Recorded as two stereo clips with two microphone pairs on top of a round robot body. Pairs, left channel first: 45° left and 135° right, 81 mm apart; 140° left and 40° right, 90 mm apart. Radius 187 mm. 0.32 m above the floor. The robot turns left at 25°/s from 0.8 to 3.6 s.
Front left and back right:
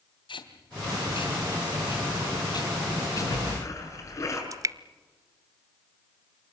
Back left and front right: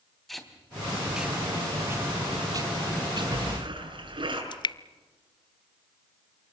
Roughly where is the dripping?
Behind.